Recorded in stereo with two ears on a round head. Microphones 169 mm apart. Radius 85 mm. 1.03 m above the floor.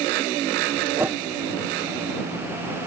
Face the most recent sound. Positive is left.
turn(degrees=-10)  # may be behind; listen again after turning